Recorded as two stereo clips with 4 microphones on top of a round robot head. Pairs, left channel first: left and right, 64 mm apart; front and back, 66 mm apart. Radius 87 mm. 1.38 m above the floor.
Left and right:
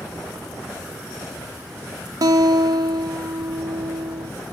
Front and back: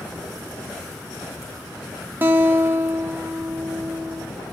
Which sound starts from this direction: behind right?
A guitar, at 2.2 s.